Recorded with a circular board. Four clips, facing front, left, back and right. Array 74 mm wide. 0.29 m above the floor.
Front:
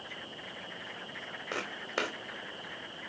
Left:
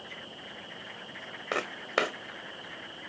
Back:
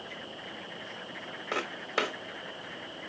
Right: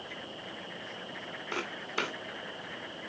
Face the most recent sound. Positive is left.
turn(degrees=95)